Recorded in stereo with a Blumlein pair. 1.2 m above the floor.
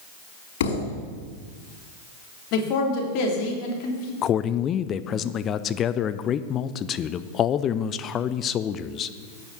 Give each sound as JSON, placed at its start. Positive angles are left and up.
{"t": 0.6, "sound": "a thud", "azimuth_deg": 55, "distance_m": 5.0}
{"t": 2.5, "sound": "a man speaking", "azimuth_deg": 40, "distance_m": 3.0}
{"t": 4.2, "sound": "a man speaking", "azimuth_deg": 30, "distance_m": 0.5}